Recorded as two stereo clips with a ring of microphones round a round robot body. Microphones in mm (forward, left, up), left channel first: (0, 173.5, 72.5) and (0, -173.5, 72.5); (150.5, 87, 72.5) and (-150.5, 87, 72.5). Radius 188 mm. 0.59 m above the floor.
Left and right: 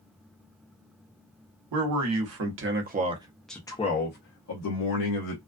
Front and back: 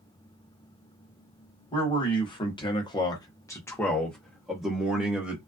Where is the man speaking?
70° right, 1.2 m; by 5.4 s 95° left, 1.2 m.